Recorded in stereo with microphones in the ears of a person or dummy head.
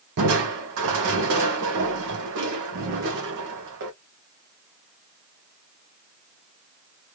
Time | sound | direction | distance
0.2 | crushing | 65° right (ahead or behind) | 1.1 m